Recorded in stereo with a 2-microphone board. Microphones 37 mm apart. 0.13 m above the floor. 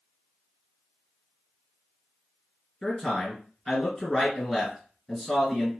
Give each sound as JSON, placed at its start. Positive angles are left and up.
{"t": 2.8, "sound": "a man speaking", "side_deg": 0, "distance_m": 1.9}